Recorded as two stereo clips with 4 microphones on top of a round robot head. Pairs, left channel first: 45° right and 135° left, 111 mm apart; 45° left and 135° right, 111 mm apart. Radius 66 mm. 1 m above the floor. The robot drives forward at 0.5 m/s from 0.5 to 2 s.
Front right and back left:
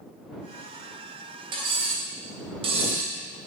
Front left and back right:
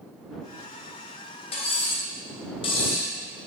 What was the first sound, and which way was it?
Cutlery clinking, 90° left.